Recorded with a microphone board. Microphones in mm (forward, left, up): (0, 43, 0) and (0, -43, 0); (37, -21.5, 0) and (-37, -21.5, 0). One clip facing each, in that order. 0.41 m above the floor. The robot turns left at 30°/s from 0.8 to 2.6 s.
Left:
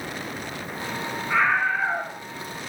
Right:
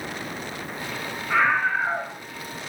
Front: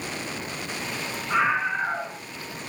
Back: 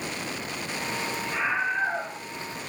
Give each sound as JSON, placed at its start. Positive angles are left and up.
{"t": 1.3, "sound": "a scream", "azimuth_deg": 0, "distance_m": 5.0}